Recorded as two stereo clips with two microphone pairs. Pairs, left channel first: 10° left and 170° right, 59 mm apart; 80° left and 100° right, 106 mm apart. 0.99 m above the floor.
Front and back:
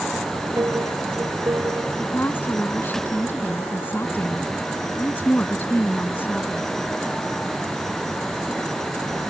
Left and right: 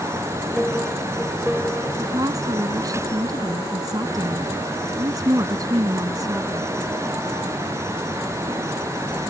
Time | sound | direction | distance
0.6 | a piano | 170° left | ?
2.0 | a woman speaking | 45° right | ?